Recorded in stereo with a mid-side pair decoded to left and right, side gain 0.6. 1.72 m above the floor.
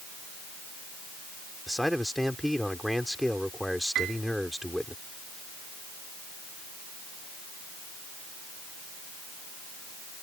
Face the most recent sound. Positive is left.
turn(degrees=-60)